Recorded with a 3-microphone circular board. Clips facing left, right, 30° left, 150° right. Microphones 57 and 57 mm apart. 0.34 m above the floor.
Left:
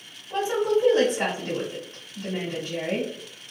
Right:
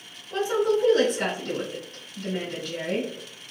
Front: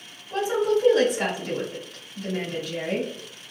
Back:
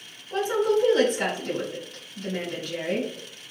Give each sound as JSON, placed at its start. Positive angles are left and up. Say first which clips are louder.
{"t": 0.3, "sound": "a woman speaking", "louder": "even, even", "azimuth_deg": 105, "distance_m": 1.5}